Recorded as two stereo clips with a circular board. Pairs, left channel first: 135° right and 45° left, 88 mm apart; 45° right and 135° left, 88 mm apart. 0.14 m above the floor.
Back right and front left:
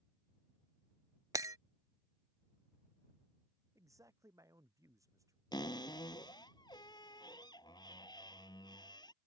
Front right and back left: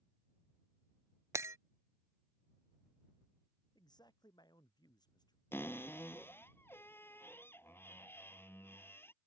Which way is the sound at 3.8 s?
5° right.